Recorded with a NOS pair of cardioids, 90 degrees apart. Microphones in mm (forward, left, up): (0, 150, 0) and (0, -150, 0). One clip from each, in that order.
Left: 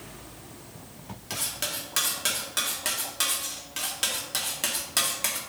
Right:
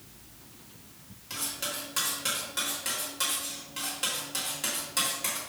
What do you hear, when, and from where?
1.3 s cutlery clinking: 40° left, 2.0 m